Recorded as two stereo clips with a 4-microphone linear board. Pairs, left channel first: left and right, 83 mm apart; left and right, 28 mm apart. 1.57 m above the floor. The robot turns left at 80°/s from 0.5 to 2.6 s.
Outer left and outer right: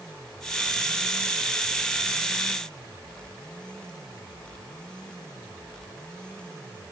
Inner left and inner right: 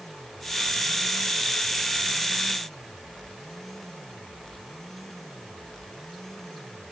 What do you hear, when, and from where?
Only background noise.